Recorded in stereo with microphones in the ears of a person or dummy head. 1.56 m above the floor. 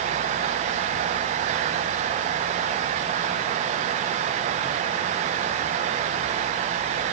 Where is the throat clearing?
I don't hear throat clearing.